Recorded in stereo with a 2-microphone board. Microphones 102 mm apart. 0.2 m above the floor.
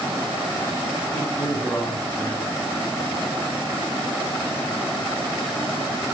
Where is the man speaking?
20° left (ahead or behind), 1.7 m.